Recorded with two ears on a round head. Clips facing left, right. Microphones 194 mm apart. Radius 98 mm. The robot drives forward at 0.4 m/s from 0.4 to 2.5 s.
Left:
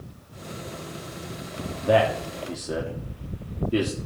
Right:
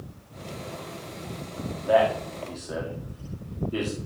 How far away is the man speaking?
About 1.7 m.